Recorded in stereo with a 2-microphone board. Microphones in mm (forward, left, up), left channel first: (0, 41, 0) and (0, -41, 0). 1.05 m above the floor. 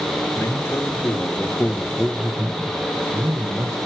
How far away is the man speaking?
About 1.5 m.